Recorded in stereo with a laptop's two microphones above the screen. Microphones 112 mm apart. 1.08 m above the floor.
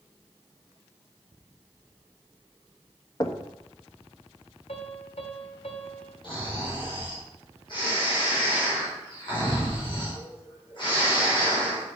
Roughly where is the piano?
Left.